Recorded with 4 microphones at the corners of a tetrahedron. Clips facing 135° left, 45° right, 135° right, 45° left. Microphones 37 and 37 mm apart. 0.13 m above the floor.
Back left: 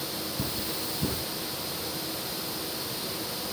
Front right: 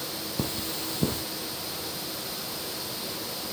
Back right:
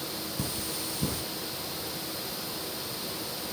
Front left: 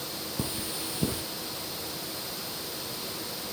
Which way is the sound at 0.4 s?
20° right.